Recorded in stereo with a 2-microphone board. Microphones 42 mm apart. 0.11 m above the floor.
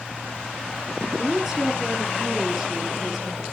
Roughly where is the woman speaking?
Centre.